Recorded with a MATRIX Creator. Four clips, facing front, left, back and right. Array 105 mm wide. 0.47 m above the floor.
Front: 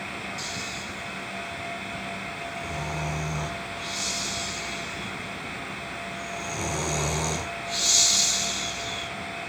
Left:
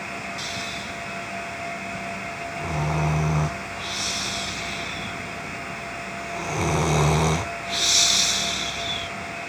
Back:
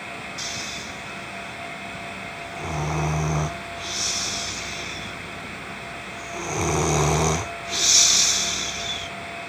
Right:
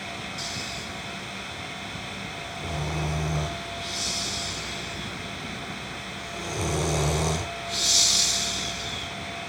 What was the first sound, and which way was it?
Snoring, 140° left.